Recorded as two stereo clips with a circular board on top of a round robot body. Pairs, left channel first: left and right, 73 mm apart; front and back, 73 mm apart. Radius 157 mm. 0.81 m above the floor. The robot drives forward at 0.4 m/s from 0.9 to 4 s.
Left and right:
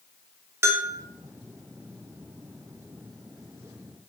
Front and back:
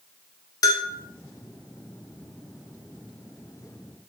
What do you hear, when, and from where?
0.6 s a bell: 40° right, 0.6 m